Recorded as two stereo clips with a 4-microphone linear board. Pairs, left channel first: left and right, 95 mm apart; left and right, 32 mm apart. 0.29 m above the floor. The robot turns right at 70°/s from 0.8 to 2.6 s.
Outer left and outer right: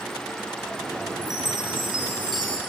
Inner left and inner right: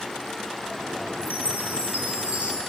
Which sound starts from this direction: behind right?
A chime, at 1.2 s.